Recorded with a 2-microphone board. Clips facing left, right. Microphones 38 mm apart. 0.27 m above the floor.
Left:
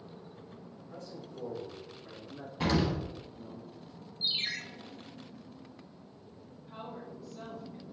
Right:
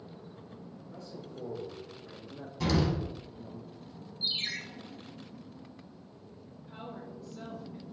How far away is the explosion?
About 0.7 m.